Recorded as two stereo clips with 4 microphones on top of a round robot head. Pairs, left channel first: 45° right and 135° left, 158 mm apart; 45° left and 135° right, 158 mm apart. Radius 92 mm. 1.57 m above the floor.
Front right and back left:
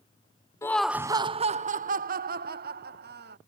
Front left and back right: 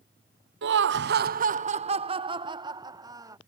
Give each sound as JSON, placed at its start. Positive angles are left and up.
{"t": 0.6, "sound": "laughter", "azimuth_deg": -120}